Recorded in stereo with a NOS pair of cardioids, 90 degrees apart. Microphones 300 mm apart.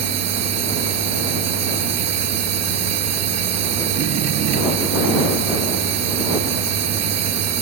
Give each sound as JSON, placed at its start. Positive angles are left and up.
{"t": 0.0, "sound": "a machine running", "azimuth_deg": -60}